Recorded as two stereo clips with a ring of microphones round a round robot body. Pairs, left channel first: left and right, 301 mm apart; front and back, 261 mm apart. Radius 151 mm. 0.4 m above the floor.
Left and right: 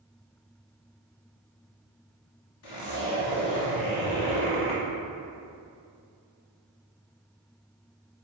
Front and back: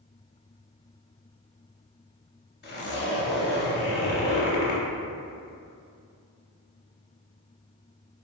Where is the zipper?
50° left, 0.8 m.